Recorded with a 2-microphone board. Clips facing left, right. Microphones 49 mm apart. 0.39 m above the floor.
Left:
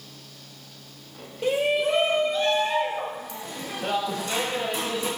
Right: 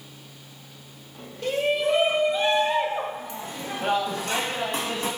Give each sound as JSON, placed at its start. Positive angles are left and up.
{"t": 1.4, "sound": "a shout", "side_deg": 20, "distance_m": 1.3}